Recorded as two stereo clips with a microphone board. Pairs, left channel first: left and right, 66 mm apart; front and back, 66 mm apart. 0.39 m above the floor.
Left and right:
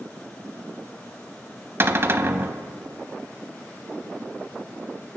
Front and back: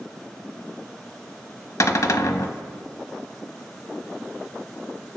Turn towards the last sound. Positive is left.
turn(degrees=-35)